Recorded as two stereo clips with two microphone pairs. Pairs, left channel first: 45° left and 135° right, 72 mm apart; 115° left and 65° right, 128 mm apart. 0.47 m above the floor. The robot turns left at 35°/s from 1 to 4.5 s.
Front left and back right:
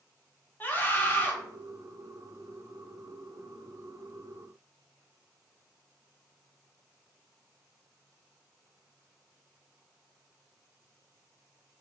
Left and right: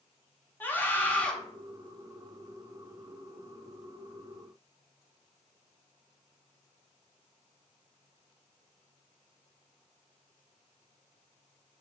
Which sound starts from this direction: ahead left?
A scream, at 0.6 s.